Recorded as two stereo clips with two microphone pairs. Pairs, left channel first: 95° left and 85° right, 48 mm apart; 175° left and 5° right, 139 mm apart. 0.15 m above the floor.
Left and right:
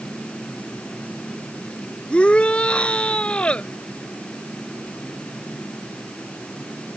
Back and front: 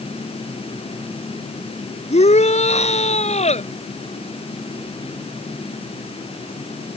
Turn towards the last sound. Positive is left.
turn(degrees=155)